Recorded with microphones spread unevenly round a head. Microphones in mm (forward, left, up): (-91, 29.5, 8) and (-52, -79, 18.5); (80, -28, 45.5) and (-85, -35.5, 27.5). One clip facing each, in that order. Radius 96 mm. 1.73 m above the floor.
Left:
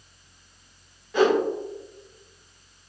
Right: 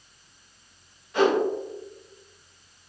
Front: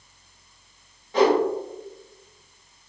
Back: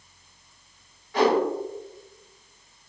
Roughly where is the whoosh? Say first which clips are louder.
Left 1 dB, front 2 dB; left.